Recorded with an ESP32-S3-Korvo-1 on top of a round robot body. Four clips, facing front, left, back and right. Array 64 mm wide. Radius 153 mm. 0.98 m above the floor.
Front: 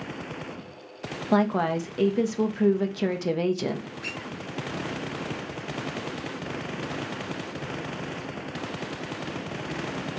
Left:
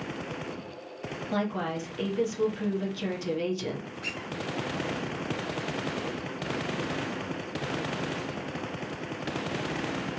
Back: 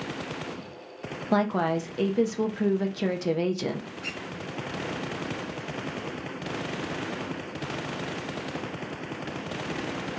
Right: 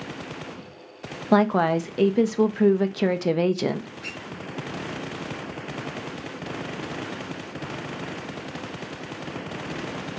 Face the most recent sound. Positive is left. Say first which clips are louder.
# even, front 1 dB
turn(degrees=20)